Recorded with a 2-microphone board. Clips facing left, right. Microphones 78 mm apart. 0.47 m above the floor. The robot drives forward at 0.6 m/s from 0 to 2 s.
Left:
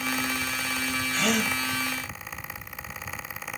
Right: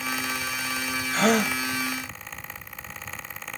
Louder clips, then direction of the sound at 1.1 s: Right 6 dB; 45° right (ahead or behind).